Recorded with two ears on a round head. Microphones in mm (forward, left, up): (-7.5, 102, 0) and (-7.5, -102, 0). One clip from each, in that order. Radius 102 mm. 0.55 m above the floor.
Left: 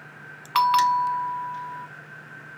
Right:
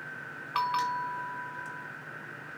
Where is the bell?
50° left (ahead or behind), 0.6 m.